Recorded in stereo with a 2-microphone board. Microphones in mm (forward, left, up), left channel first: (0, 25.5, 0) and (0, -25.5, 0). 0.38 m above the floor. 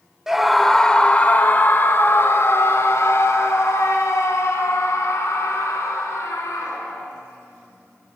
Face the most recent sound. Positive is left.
turn(degrees=70)  # may be behind; listen again after turning